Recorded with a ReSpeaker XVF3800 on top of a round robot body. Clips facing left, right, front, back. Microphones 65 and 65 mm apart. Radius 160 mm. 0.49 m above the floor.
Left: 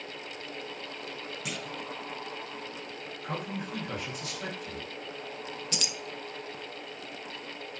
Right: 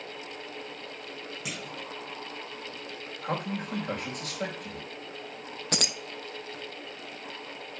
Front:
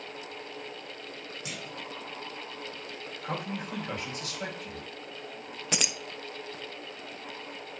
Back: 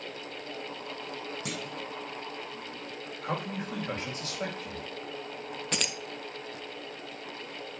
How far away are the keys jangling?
About 0.7 m.